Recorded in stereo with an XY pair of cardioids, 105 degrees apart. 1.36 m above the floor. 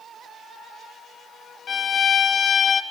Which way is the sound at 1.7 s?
45° left.